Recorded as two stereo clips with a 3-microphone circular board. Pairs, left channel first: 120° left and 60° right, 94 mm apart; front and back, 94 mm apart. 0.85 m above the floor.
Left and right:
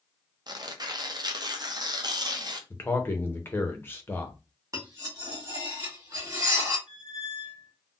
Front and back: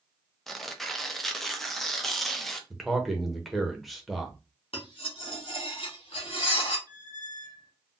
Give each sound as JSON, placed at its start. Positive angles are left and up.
{"t": 0.5, "sound": "tearing paper", "azimuth_deg": -85, "distance_m": 0.5}
{"t": 2.7, "sound": "a man speaking", "azimuth_deg": 90, "distance_m": 0.7}
{"t": 4.7, "sound": "cutlery clinking", "azimuth_deg": -5, "distance_m": 1.6}
{"t": 6.9, "sound": "a squeak", "azimuth_deg": -140, "distance_m": 1.1}